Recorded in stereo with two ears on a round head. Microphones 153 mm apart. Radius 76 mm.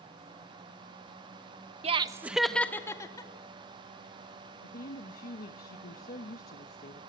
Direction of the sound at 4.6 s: 55° left (ahead or behind).